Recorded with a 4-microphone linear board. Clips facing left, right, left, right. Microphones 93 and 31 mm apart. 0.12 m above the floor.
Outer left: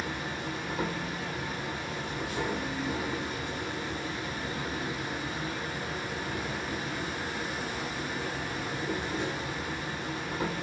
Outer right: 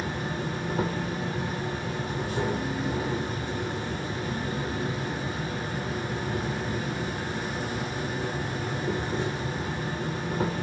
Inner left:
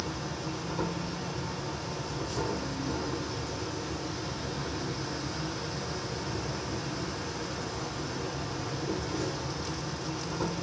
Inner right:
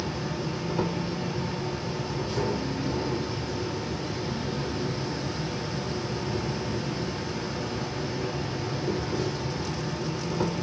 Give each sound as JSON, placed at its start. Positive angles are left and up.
{"t": 0.0, "sound": "an insect", "side_deg": -35, "distance_m": 0.8}